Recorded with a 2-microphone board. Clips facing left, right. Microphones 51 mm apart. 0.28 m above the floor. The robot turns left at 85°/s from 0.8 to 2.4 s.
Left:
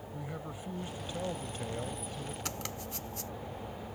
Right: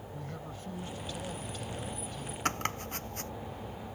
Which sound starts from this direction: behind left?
A man speaking, at 0.1 s.